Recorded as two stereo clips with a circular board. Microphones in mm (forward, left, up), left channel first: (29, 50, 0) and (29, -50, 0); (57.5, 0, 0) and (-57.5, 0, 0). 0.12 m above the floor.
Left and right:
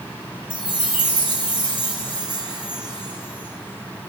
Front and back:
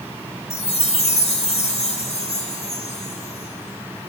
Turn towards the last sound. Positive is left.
turn(degrees=-10)